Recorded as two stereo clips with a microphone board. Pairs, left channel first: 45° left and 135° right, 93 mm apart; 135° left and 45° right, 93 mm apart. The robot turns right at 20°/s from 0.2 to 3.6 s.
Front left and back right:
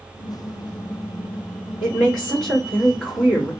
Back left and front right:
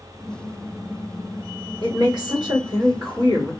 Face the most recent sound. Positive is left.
turn(degrees=-35)